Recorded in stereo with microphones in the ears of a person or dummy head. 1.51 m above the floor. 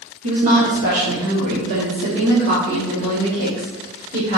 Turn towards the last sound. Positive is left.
turn(degrees=-60)  # may be behind; listen again after turning